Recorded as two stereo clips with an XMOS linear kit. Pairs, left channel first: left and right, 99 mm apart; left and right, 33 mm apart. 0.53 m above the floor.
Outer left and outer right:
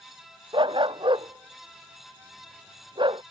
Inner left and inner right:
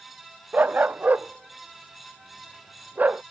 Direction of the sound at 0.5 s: 50° right (ahead or behind).